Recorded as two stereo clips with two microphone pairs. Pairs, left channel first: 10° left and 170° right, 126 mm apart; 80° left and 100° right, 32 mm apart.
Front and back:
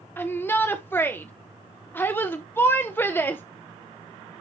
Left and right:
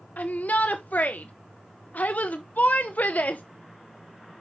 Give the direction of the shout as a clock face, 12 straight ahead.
9 o'clock.